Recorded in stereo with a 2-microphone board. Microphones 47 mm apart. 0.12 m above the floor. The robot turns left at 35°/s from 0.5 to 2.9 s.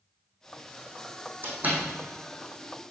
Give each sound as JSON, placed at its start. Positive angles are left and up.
{"t": 1.4, "sound": "a door slam", "side_deg": -45, "distance_m": 4.0}